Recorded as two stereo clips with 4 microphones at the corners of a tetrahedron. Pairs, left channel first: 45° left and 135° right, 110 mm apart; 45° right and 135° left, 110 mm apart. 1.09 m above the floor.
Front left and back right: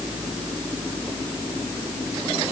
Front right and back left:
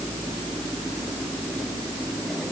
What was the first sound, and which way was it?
Only background noise.